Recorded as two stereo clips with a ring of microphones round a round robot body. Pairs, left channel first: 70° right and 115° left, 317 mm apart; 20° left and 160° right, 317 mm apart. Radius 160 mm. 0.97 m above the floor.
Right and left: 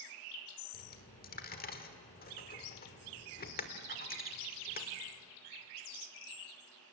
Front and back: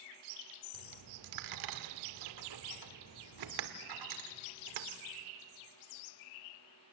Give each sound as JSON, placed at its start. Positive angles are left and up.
{"t": 0.7, "sound": "a dropped coin", "azimuth_deg": -130, "distance_m": 1.4}